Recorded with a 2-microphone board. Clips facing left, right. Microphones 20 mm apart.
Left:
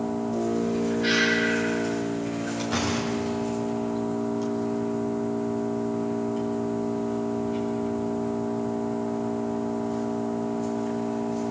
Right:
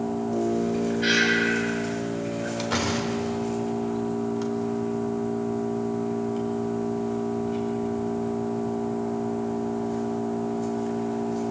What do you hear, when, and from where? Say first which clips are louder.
0.0 s an engine running: right 1 dB; 20° right (ahead or behind), 7 m
1.0 s breathing: right 2 dB; 50° right (ahead or behind), 6.5 m
2.6 s a door slam: right 1 dB; 30° right (ahead or behind), 3.5 m